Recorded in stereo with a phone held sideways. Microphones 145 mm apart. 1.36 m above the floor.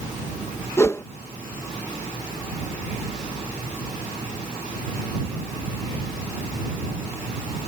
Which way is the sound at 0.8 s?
20° left (ahead or behind).